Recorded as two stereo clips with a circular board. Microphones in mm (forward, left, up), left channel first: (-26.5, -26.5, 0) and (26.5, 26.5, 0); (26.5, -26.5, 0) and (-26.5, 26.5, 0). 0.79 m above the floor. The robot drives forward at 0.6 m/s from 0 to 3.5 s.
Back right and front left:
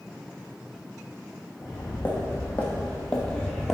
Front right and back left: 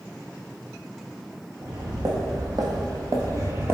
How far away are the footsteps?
About 2 m.